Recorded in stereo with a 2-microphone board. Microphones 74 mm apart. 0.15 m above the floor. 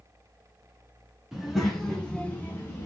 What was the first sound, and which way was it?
A child speaking, 5° right (ahead or behind).